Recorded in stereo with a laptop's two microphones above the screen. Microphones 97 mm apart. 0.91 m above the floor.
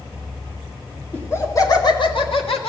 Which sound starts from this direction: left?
Laughter, at 1.1 s.